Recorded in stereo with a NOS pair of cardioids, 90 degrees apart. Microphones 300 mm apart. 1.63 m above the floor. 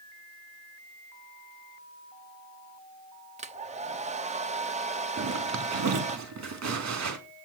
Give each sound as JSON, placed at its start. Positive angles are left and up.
{"t": 3.4, "sound": "a hair dryer", "azimuth_deg": -20, "distance_m": 0.8}
{"t": 5.2, "sound": "a zipper", "azimuth_deg": -60, "distance_m": 3.5}